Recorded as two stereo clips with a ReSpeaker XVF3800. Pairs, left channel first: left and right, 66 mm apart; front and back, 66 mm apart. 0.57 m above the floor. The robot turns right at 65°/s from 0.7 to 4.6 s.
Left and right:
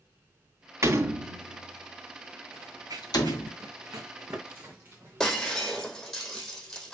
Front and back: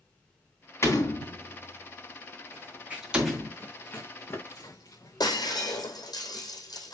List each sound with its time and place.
0.8 s a door slam: 45° right, 3 m; by 3.5 s 130° left, 3 m
2.5 s running footsteps: 125° right, 2.5 m; by 5.9 s 35° right, 4.5 m
5.2 s breaking glass: 5° left, 3 m